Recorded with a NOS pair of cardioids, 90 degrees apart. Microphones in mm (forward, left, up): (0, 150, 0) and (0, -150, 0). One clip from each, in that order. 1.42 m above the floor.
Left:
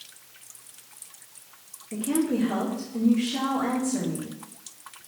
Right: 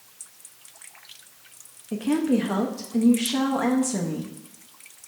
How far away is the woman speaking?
About 0.8 m.